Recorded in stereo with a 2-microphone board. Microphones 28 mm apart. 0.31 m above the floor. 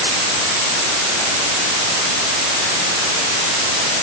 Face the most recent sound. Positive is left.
No sound to turn to.